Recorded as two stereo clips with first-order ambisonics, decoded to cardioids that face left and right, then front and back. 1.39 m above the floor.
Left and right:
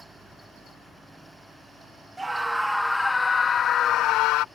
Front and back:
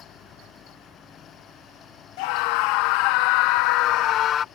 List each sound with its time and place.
2.2 s a scream: 10° right; by 4.5 s 60° left